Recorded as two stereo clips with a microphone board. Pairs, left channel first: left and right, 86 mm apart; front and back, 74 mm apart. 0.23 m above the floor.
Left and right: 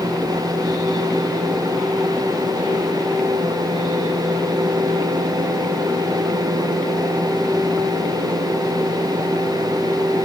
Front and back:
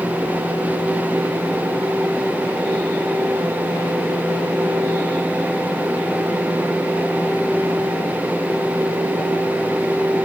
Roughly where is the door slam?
No door slam in this recording.